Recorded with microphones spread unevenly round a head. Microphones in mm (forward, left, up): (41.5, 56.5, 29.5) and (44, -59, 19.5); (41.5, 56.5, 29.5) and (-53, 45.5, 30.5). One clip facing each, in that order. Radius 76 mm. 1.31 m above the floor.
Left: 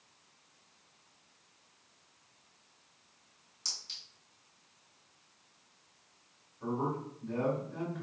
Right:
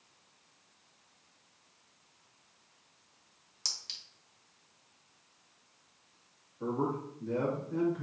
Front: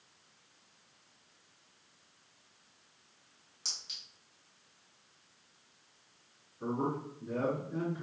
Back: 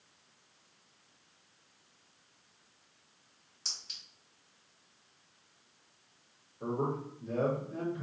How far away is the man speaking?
About 1.9 m.